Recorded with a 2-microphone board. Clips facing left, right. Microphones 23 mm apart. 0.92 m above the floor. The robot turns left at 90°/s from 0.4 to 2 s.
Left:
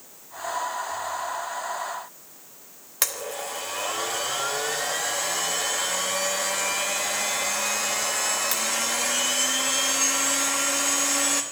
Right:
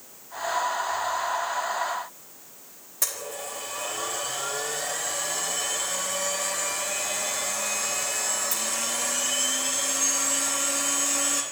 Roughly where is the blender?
Left.